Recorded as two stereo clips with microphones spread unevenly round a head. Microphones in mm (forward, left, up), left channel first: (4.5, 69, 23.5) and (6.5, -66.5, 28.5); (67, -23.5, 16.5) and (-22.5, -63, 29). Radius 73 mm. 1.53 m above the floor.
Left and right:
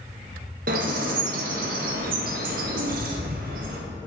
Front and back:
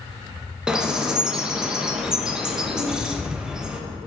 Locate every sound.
0.7 s a bird: 80° right, 1.1 m